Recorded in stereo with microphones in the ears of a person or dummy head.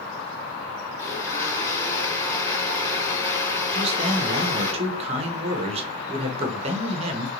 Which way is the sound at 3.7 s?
30° right (ahead or behind).